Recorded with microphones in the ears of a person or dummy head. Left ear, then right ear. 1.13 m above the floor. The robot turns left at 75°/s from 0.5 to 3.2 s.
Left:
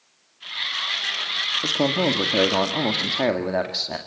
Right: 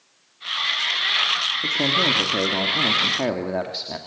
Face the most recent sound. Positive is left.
turn(degrees=15)